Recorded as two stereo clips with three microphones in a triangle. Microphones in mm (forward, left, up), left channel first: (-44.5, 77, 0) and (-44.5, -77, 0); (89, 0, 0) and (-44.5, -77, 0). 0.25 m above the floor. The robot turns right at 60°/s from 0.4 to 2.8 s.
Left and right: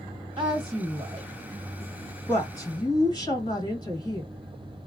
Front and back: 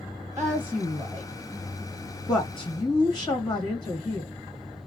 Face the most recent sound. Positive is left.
turn(degrees=55)